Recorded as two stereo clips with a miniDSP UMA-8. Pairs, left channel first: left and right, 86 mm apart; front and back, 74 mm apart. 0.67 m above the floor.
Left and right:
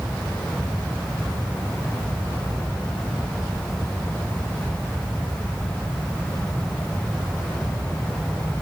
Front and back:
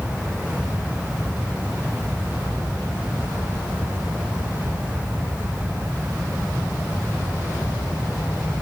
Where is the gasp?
I don't hear a gasp.